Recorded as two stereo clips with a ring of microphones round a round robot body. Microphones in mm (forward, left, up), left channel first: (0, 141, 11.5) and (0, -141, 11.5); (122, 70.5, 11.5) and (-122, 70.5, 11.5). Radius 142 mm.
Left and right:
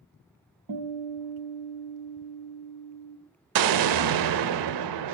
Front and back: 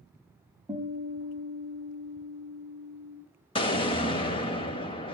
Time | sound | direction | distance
0.7 | a guitar | 95° right | 3 m
3.5 | an explosion | 75° right | 0.6 m